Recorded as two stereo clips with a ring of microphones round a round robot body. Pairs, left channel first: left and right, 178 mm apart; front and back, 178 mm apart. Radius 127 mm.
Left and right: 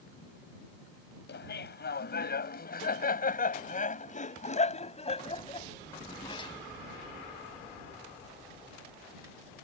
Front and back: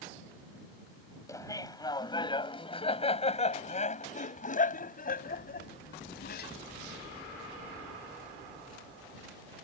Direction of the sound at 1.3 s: 70° left.